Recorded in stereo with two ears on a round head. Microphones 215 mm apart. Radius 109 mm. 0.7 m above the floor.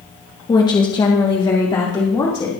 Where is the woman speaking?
20° left (ahead or behind), 1.1 m.